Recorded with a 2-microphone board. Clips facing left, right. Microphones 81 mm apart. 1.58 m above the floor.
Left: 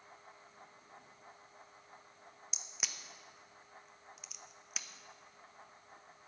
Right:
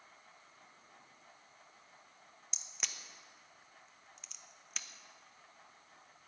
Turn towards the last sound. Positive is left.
turn(degrees=5)  # may be behind; listen again after turning